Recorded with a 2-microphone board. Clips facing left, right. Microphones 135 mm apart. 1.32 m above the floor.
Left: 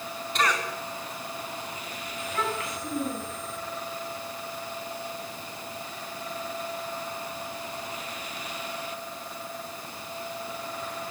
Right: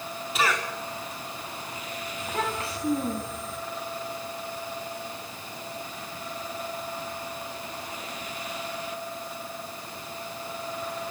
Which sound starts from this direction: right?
A child speaking, at 2.2 s.